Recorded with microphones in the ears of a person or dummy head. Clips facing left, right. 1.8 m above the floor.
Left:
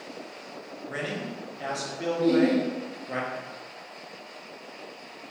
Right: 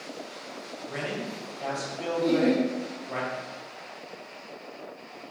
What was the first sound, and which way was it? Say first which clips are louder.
A man speaking: even; 15° left (ahead or behind).